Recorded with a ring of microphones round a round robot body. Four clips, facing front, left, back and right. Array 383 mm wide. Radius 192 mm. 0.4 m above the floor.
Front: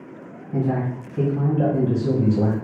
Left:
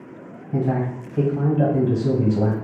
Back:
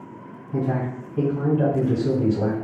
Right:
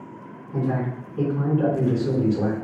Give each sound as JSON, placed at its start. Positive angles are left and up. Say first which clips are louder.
{"t": 0.5, "sound": "a man speaking", "louder": "left 3 dB, front 1 dB", "azimuth_deg": 90, "distance_m": 2.0}